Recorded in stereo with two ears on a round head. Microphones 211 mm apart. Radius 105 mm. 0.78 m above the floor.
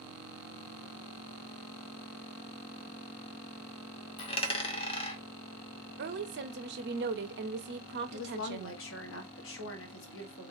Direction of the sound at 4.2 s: 25° left (ahead or behind).